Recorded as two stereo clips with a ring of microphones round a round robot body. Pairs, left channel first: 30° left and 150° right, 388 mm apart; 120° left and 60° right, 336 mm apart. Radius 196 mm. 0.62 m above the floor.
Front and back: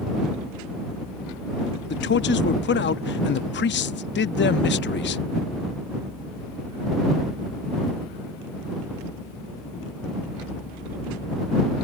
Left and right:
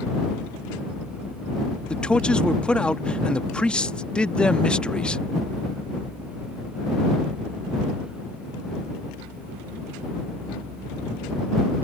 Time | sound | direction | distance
1.9 | a man speaking | 35° left | ?